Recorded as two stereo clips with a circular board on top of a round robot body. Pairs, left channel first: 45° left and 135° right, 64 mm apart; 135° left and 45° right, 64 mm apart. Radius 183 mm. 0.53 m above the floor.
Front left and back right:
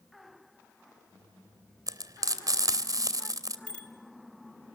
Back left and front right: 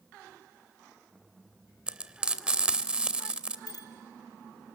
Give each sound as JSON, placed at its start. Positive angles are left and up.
{"t": 1.9, "sound": "frying", "azimuth_deg": -115, "distance_m": 2.5}
{"t": 3.7, "sound": "a bicycle bell", "azimuth_deg": 120, "distance_m": 6.0}